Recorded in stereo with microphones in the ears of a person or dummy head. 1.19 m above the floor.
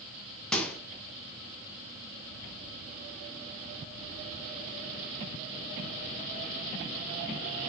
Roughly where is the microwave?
Centre.